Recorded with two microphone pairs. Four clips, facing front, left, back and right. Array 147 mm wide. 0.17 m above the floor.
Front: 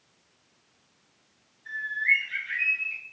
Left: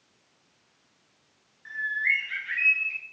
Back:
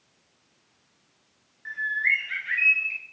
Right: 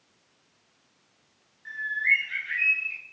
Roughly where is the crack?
I don't hear a crack.